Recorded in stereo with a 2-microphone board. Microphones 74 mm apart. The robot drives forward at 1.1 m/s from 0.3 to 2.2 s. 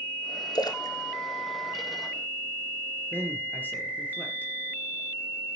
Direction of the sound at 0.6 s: 65° left (ahead or behind).